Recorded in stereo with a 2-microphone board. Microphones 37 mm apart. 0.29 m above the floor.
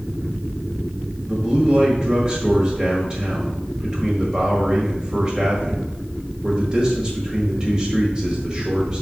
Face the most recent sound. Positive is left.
turn(degrees=-25)  # may be behind; listen again after turning